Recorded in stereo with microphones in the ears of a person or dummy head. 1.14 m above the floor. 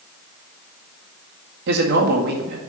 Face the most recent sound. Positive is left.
turn(degrees=-60)  # may be behind; listen again after turning